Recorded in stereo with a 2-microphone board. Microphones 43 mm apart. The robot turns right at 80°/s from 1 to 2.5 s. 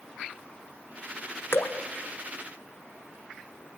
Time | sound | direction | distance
1.5 | dripping | 70° left (ahead or behind) | 1.8 m